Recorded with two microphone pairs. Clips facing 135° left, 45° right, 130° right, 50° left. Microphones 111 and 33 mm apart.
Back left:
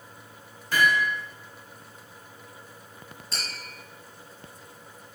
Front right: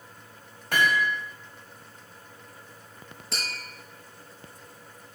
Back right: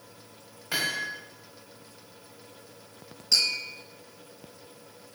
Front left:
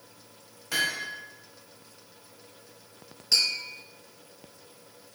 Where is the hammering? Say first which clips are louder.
Back left 1 dB, front left 1 dB; 55° right, 2 m.